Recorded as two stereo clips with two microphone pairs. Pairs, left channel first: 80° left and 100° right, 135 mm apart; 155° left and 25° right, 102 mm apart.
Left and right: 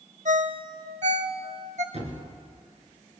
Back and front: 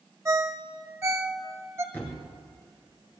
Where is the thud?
135° right, 2 m.